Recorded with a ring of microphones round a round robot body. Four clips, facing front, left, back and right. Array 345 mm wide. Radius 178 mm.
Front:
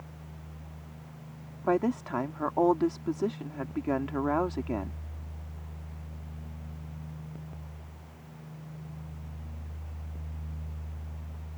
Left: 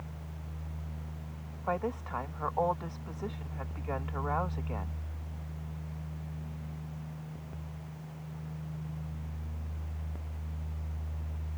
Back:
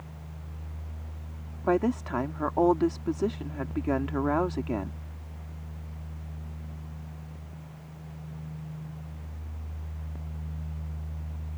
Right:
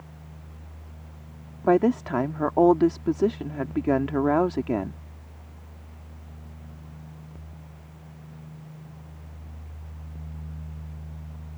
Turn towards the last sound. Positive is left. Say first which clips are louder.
# right 13 dB, back 2 dB
turn(degrees=-95)